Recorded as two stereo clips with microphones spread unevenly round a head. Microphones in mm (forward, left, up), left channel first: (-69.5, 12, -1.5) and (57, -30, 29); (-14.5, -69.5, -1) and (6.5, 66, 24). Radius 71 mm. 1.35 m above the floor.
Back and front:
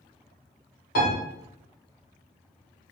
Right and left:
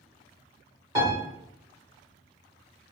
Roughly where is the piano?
Behind left.